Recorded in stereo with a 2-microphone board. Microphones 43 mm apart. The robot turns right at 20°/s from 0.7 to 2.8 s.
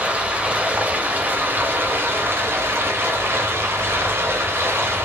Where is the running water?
145° right, 0.8 m; by 5.0 s 100° right, 0.8 m.